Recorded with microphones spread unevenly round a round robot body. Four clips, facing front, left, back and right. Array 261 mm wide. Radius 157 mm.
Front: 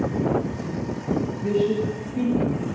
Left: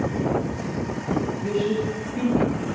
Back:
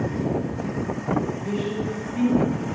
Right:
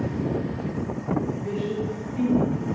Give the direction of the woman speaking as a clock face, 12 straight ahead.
12 o'clock.